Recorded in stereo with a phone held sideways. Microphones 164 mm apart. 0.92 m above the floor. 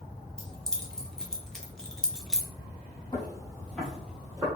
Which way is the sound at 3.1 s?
30° left (ahead or behind).